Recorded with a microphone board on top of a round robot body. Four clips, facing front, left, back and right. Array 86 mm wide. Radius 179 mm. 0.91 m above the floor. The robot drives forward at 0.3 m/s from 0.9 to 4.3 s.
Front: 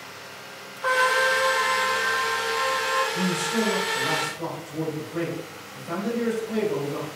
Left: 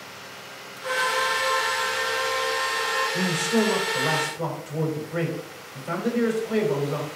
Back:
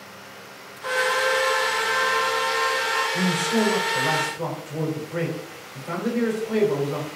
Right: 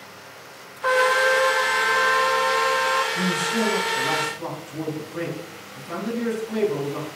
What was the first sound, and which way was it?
A trumpet, 65° right.